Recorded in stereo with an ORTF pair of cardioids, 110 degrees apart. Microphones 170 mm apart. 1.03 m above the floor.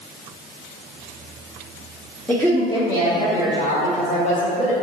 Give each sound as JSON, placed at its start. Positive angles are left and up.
{"t": 2.3, "sound": "a woman speaking", "azimuth_deg": 5, "distance_m": 0.6}